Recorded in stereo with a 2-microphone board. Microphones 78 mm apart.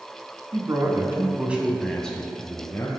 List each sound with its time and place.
0.5 s a man speaking: 45° right (ahead or behind), 2.5 m; by 2.9 s 35° left (ahead or behind), 2 m